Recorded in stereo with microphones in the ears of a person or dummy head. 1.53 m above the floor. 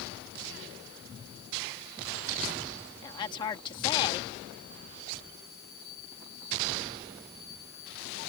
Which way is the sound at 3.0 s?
25° left (ahead or behind).